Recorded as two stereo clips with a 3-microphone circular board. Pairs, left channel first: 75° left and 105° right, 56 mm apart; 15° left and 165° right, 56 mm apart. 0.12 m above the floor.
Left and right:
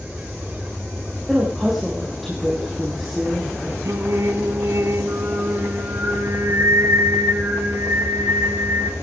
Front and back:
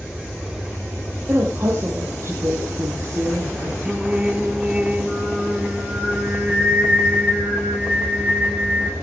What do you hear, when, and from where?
1.3 s a woman speaking: 165° left, 4.5 m
3.9 s singing: 100° right, 2.5 m